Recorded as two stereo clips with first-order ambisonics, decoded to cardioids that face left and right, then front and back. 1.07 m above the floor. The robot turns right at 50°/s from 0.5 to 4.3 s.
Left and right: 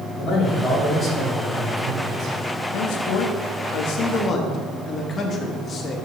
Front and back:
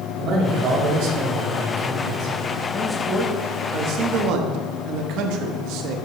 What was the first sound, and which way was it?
A man speaking, 135° left.